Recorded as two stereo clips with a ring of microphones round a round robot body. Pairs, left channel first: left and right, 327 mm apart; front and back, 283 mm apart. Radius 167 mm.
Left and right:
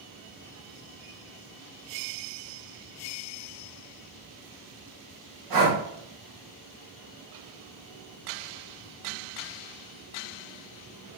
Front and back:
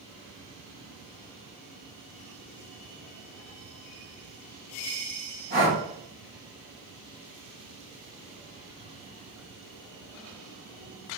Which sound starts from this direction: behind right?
Breathing, at 5.5 s.